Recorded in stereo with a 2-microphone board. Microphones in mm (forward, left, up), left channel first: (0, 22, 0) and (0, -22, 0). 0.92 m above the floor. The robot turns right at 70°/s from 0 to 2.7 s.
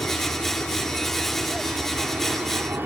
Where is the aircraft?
80° left; by 2.9 s 95° right.